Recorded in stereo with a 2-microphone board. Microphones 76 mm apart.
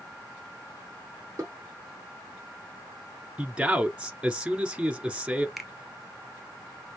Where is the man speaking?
15° right (ahead or behind), 1.1 m.